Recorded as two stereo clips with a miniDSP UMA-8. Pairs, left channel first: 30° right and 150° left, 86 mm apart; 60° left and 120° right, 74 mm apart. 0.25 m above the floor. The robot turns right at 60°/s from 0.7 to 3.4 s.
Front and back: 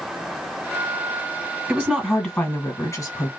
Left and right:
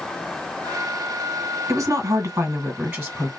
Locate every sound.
1.7 s a woman speaking: 125° right, 1.6 m; by 3.3 s 30° right, 1.6 m